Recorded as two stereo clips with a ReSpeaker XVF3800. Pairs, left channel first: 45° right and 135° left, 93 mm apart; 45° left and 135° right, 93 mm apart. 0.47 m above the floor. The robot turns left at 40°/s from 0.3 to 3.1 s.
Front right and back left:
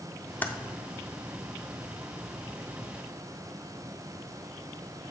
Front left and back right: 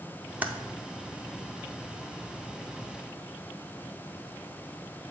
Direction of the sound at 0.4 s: 85° right.